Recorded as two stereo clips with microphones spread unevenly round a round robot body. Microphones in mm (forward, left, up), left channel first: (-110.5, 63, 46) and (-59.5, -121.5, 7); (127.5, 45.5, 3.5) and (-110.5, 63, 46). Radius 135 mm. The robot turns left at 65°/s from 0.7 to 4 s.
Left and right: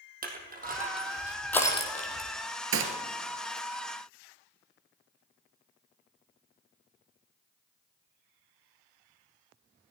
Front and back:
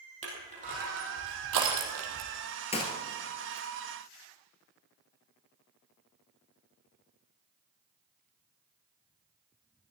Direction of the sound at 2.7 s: 75° right.